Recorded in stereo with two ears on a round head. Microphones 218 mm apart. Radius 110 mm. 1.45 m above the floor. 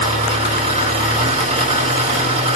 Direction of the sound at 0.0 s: 25° right (ahead or behind).